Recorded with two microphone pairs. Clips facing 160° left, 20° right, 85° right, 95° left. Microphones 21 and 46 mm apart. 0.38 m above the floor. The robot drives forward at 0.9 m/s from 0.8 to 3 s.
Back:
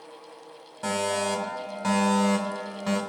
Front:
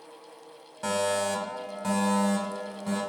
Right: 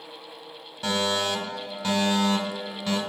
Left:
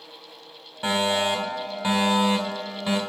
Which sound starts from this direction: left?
A fire alarm, at 0.8 s.